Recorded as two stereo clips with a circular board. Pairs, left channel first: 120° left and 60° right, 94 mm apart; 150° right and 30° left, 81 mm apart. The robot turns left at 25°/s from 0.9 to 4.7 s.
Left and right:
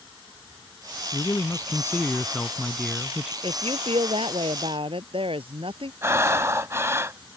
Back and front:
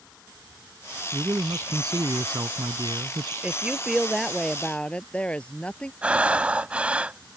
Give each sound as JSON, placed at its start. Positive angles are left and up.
{"t": 1.1, "sound": "a man speaking", "azimuth_deg": 75}
{"t": 3.4, "sound": "a woman speaking", "azimuth_deg": -40}
{"t": 6.0, "sound": "breathing", "azimuth_deg": -35}